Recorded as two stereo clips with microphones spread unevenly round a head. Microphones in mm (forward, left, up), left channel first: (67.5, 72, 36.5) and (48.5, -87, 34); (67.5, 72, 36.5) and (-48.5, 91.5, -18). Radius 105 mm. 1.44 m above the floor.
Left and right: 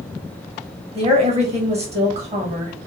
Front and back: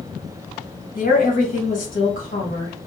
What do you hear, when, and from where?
0.9 s a woman speaking: 45° right, 1.5 m